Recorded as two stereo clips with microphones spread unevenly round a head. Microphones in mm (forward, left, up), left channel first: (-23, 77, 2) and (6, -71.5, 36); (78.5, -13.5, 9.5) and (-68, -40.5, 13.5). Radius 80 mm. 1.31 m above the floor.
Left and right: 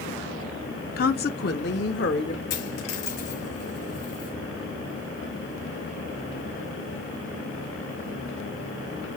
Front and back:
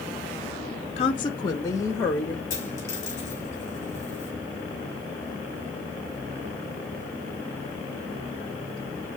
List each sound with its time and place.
1.0 s a woman speaking: 70° left, 0.5 m; by 2.4 s 90° left, 1.2 m
2.5 s a dropped coin: 85° left, 4 m